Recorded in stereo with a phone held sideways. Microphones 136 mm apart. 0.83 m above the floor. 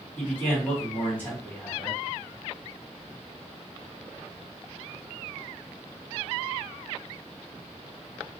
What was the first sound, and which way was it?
A man speaking, 15° left (ahead or behind).